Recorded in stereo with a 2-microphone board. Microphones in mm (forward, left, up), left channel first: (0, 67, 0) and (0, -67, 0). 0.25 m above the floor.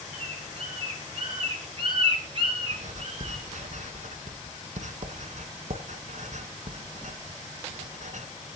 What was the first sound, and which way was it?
A bird, 40° right (ahead or behind).